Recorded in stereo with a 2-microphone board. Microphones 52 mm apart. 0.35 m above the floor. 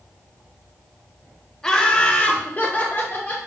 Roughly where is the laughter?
Centre.